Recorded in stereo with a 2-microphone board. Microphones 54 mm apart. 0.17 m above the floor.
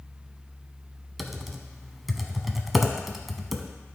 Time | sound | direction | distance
1.2 | typing on a keyboard | centre (ahead or behind) | 0.7 m